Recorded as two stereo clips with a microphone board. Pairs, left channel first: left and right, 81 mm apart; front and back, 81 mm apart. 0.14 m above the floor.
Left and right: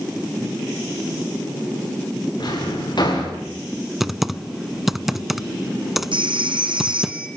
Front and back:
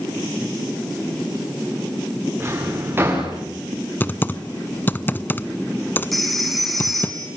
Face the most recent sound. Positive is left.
turn(degrees=-90)